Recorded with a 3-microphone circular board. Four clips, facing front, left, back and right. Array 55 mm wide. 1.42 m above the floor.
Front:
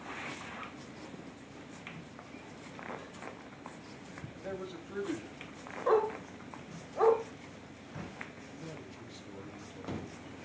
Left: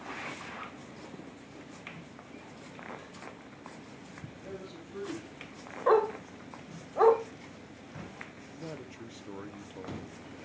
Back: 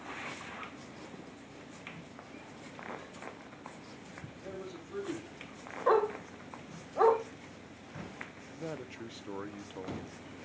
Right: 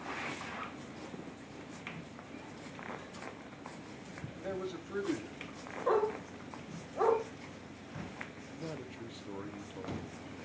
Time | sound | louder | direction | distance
4.4 | a man speaking | right 6 dB, front 3 dB | 60° right | 3 m
5.9 | a dog barking | left 6 dB, back 1 dB | 115° left | 1.4 m
8.5 | a man speaking | left 1 dB, back 4 dB | 175° left | 1.0 m